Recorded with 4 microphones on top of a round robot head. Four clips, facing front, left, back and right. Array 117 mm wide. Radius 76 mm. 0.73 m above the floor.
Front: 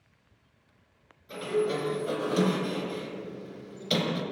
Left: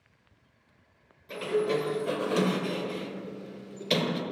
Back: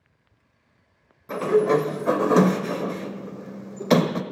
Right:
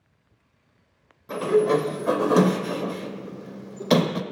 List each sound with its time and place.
1.3 s a sliding door: 145° right, 0.8 m